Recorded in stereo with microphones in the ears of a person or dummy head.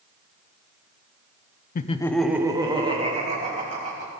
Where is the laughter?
50° left (ahead or behind), 0.5 m; by 4.1 s 35° right (ahead or behind), 2.5 m.